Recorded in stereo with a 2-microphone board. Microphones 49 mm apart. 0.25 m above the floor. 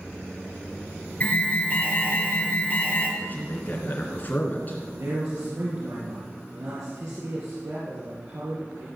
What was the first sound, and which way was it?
An alarm, 35° left (ahead or behind).